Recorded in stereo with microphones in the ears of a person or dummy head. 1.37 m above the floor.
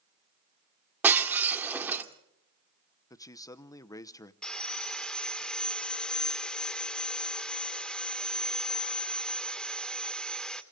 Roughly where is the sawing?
Centre.